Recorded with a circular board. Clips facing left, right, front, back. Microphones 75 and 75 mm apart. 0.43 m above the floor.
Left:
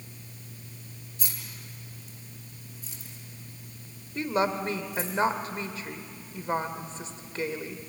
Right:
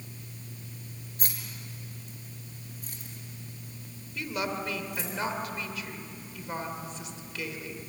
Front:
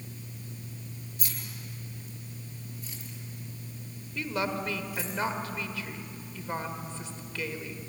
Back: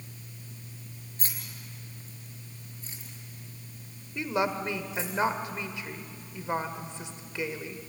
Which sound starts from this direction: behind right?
Keys jangling, at 1.2 s.